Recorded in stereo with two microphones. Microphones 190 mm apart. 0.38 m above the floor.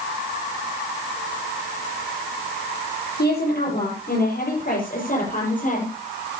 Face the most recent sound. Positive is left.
turn(degrees=45)  # may be behind; listen again after turning